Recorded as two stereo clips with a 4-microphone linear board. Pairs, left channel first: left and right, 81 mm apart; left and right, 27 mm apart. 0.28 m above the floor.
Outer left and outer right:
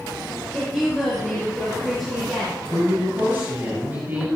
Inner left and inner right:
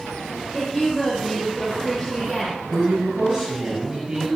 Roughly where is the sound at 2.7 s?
Right.